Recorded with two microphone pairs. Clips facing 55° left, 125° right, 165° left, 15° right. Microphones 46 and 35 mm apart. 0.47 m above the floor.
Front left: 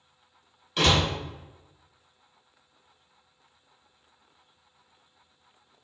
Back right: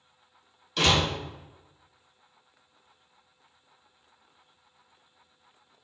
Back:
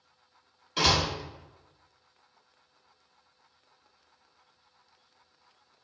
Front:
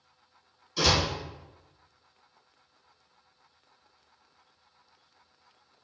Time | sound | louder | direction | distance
0.8 | a door slam | front left 1 dB, even | 130° left | 1.9 m